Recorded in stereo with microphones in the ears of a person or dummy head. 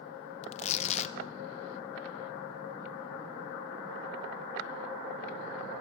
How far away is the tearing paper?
About 1.1 m.